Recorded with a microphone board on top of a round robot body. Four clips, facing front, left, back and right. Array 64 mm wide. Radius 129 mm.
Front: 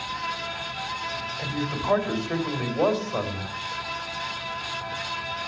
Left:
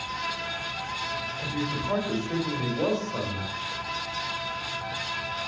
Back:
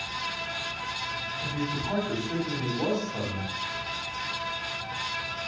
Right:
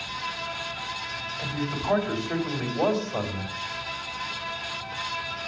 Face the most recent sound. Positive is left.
turn(degrees=-25)